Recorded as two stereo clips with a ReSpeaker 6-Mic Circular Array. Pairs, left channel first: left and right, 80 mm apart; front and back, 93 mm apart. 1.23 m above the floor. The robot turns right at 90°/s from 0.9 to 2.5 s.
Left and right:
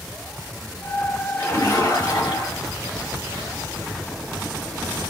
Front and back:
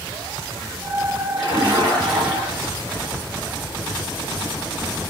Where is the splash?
25° left, 2.5 m; by 2.8 s 125° left, 2.5 m.